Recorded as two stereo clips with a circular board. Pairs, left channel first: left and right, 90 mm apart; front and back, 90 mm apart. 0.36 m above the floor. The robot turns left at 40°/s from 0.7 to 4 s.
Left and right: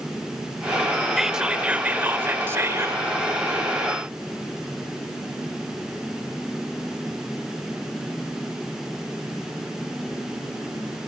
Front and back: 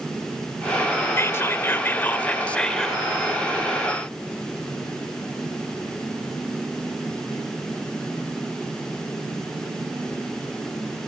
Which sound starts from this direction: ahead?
Whispering, at 1.2 s.